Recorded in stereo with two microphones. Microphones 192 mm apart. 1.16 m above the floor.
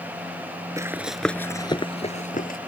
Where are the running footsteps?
15° right (ahead or behind); by 2.6 s 50° left (ahead or behind).